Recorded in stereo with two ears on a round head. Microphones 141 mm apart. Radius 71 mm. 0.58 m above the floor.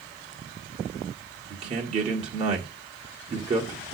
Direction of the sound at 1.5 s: 40° right (ahead or behind).